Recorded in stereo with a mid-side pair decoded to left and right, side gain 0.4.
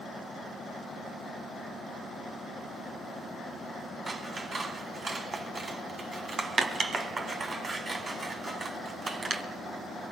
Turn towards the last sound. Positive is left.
turn(degrees=-40)